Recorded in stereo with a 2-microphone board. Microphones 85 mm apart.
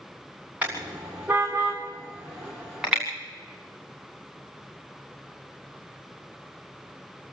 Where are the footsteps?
No footsteps in this recording.